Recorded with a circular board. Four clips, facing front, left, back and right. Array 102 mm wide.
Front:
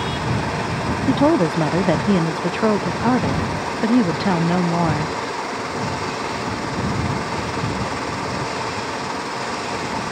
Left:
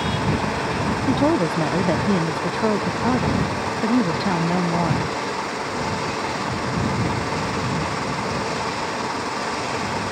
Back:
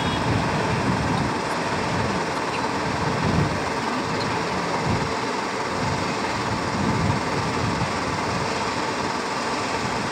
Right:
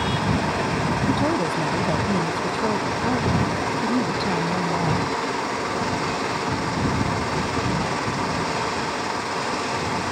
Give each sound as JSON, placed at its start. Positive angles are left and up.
{"t": 1.1, "sound": "a woman speaking", "azimuth_deg": 20}